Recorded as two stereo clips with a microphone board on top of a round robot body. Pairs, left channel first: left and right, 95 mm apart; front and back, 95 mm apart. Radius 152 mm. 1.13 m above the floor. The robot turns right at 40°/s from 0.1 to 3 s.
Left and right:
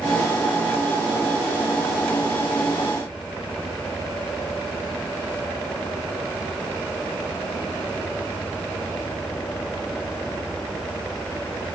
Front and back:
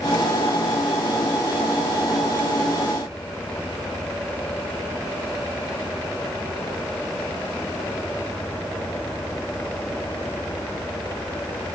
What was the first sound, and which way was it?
Only background noise.